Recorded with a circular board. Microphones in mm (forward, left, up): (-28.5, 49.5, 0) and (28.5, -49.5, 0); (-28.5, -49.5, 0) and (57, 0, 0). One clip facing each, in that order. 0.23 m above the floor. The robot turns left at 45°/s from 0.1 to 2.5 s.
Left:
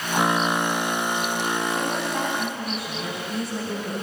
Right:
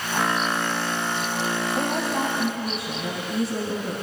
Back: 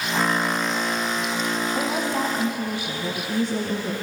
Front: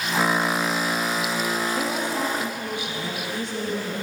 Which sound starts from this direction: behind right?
A woman speaking, at 1.8 s.